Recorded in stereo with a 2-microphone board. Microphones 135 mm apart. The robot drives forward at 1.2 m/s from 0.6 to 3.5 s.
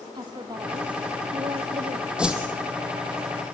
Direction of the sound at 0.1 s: 35° right (ahead or behind).